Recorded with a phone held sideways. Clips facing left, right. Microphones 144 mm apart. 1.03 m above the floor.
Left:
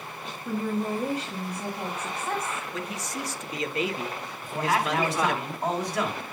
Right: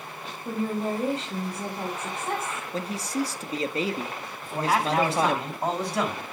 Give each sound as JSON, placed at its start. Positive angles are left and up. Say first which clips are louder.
{"t": 0.5, "sound": "a woman speaking", "louder": "right 1 dB", "side_deg": -25, "distance_m": 4.5}
{"t": 2.7, "sound": "a man speaking", "louder": "right 5 dB", "side_deg": -30, "distance_m": 1.5}
{"t": 4.4, "sound": "a man speaking", "louder": "right 1 dB", "side_deg": -30, "distance_m": 8.0}